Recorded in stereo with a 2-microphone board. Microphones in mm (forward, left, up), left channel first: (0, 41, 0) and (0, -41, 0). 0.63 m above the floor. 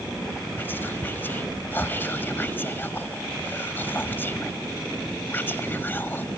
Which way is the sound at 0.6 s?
25° left (ahead or behind).